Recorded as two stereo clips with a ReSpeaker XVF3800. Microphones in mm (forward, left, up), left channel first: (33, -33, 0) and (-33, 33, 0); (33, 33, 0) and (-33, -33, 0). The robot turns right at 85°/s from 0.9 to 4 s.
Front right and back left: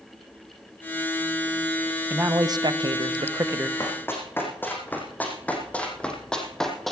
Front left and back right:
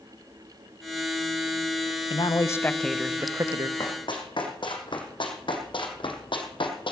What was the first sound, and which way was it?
A man speaking, 65° left.